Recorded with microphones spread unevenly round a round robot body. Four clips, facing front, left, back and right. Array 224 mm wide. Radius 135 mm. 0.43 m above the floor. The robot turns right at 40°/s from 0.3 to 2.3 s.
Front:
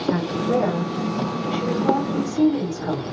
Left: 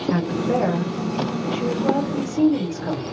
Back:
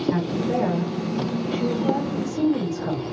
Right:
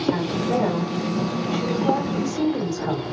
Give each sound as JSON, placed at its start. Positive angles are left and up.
{"t": 0.1, "sound": "a woman speaking", "azimuth_deg": 55, "distance_m": 2.0}